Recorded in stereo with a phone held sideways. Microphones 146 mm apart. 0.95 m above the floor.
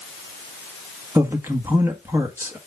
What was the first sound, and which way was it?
A man speaking, 15° right (ahead or behind).